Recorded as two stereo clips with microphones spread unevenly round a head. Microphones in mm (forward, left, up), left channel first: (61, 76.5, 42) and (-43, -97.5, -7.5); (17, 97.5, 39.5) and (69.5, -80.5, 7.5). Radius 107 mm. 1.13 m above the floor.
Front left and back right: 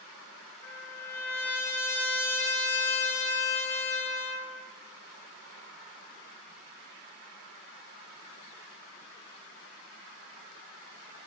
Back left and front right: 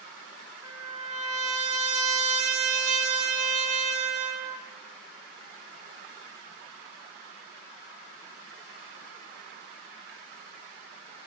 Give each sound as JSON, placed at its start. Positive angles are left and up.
{"t": 0.6, "sound": "a trumpet", "azimuth_deg": -20, "distance_m": 2.5}